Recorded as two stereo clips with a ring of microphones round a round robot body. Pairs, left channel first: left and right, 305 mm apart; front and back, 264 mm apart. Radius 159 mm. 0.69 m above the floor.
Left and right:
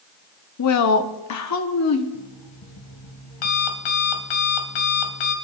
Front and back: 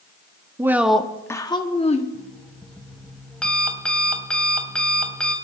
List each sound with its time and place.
0.6 s a woman speaking: 100° left, 1.1 m; by 2.0 s 60° left, 1.5 m
2.1 s an alarm clock: 85° left, 2.5 m